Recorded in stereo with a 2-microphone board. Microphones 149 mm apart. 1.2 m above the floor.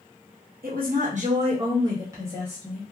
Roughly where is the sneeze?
No sneeze in this recording.